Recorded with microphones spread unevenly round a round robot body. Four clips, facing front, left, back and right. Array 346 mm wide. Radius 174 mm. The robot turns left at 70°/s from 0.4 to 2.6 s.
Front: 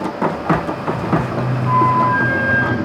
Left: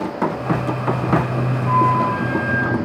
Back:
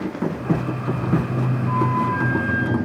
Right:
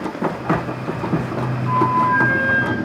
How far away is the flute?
About 1.9 m.